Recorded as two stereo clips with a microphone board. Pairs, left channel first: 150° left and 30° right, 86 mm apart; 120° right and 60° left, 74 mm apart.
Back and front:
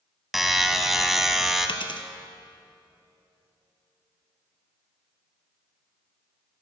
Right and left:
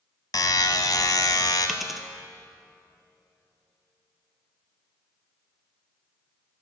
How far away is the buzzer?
About 1.0 m.